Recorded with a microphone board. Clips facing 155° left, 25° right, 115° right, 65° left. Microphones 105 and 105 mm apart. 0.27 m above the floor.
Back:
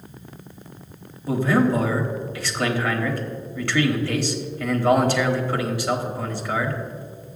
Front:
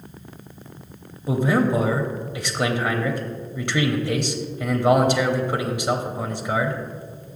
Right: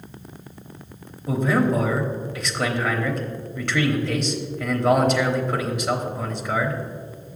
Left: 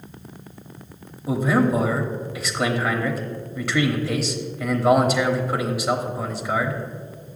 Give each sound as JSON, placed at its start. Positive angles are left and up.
{"t": 1.3, "sound": "a man speaking", "azimuth_deg": -5, "distance_m": 0.9}